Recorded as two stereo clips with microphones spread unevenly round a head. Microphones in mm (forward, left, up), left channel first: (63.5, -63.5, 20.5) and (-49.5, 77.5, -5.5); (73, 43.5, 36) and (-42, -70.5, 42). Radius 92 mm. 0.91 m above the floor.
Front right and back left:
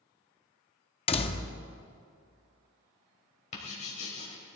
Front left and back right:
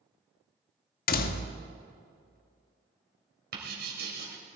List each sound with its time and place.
1.1 s a door slam: 10° left, 0.9 m
3.5 s writing: 105° right, 3 m